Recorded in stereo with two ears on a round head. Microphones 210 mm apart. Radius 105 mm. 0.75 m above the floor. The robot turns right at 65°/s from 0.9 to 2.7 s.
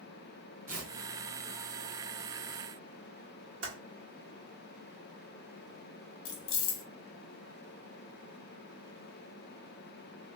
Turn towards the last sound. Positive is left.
turn(degrees=55)  # may be behind; listen again after turning